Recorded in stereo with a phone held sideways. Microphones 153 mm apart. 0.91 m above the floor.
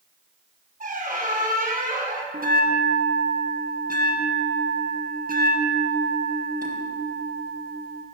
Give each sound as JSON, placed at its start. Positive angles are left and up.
{"t": 0.8, "sound": "a squeak", "side_deg": -60, "distance_m": 0.9}
{"t": 2.3, "sound": "a bell", "side_deg": -65, "distance_m": 1.1}